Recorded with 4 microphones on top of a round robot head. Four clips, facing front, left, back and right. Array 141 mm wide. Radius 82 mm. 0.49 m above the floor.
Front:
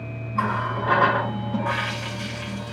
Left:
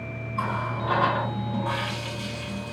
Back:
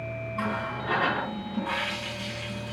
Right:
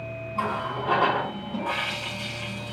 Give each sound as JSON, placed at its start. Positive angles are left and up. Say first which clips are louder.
{"t": 0.3, "sound": "a running tap", "louder": "right 1 dB, front 7 dB", "azimuth_deg": -5, "distance_m": 5.5}